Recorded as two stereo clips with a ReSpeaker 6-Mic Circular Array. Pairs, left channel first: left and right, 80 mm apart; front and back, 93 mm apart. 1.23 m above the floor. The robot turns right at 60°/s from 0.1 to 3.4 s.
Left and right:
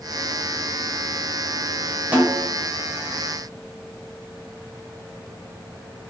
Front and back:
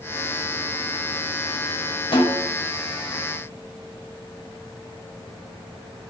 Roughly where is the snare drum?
Ahead.